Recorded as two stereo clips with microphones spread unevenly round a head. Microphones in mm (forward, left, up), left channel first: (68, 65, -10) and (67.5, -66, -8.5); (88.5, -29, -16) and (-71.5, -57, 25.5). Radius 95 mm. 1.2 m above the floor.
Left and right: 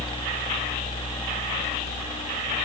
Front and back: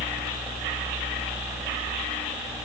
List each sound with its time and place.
Only background noise.